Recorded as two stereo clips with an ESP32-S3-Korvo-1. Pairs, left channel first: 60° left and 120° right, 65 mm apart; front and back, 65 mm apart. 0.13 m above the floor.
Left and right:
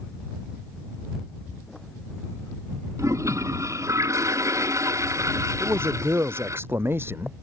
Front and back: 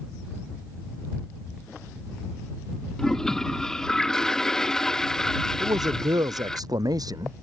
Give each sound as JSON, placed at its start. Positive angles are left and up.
{"t": 3.0, "sound": "a toilet flushing", "azimuth_deg": -80}
{"t": 5.6, "sound": "a man speaking", "azimuth_deg": -170}